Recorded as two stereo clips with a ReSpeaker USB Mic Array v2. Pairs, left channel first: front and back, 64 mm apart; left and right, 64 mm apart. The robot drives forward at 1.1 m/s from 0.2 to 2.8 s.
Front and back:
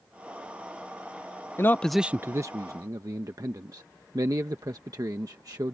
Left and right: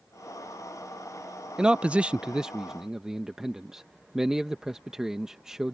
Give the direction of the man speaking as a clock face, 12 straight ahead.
1 o'clock.